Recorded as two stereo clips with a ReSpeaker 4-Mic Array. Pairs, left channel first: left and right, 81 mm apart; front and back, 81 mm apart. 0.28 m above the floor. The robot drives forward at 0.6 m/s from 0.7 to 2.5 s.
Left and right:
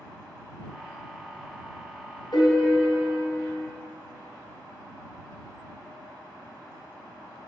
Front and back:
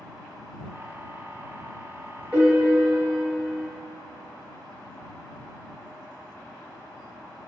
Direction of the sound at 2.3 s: 110° left.